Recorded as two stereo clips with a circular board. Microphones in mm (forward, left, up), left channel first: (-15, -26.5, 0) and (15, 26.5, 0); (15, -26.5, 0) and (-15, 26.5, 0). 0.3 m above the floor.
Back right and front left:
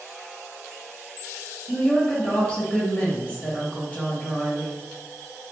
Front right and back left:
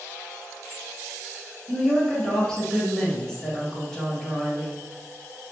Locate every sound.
1.7 s a woman speaking: 115° right, 0.9 m